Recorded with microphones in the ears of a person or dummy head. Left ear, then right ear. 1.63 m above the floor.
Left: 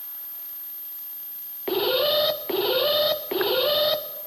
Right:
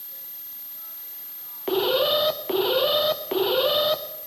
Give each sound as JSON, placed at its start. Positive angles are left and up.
{"t": 1.7, "sound": "an alarm", "side_deg": 0, "distance_m": 0.7}